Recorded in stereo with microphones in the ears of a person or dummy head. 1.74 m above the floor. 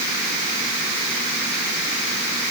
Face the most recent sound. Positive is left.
No sound to turn to.